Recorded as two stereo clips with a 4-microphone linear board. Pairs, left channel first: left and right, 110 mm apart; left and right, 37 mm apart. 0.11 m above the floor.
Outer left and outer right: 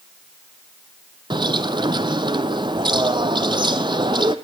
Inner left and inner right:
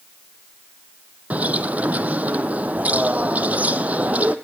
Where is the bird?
45° right (ahead or behind), 0.7 m.